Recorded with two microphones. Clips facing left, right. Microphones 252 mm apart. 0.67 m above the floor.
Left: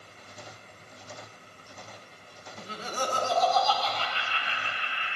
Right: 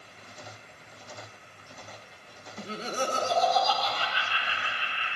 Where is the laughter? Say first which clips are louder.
Right 3 dB; 25° right (ahead or behind), 0.7 m; by 5.2 s 10° right (ahead or behind), 3.5 m.